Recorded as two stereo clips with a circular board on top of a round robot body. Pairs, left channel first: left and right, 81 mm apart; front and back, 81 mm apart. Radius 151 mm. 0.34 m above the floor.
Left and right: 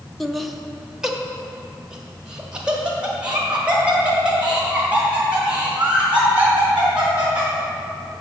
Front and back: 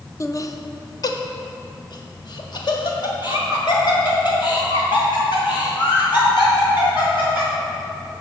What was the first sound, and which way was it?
Laughter, 5° left.